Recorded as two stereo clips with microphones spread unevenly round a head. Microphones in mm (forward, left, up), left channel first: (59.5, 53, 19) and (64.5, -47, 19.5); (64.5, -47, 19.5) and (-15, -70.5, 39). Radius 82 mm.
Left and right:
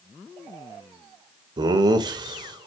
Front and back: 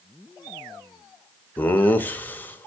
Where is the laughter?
60° right, 0.7 m.